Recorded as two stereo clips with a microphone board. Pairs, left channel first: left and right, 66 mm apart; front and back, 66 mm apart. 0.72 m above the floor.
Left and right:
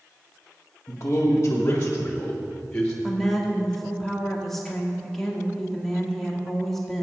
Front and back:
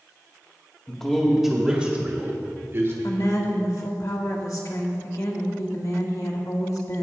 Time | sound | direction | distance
0.9 | a man speaking | 65° left | 1.3 m
3.0 | a woman speaking | 5° left | 1.5 m